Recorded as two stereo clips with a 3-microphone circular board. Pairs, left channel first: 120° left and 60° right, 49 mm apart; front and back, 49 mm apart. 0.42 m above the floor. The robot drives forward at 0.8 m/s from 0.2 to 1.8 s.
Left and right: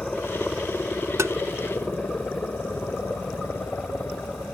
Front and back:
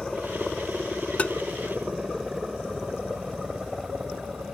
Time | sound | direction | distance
0.0 | a helicopter | 80° left | ?
1.2 | tapping | 60° right | ?